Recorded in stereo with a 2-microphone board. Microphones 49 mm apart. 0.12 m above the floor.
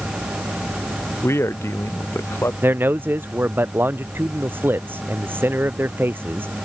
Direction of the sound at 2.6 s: 50° right (ahead or behind).